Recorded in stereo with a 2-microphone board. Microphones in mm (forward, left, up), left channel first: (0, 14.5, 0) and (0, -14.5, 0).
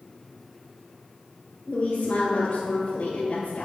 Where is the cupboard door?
I don't hear a cupboard door.